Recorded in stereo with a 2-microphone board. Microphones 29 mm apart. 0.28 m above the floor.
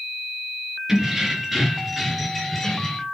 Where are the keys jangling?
20° right (ahead or behind), 3 m; by 3.0 s 10° left (ahead or behind), 3 m.